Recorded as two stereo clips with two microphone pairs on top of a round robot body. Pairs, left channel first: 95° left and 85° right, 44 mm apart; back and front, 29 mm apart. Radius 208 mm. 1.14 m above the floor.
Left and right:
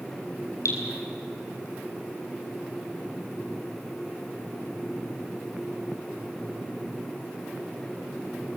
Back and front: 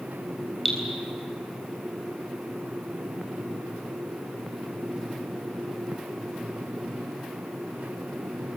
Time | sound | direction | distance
0.7 | dripping | 100° left | 3.5 m